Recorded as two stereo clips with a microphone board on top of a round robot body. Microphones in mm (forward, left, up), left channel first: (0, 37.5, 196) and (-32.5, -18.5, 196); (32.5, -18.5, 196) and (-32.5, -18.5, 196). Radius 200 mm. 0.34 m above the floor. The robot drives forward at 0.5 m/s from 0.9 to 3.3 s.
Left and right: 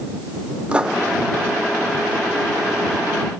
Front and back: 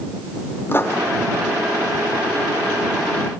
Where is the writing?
50° right, 2 m.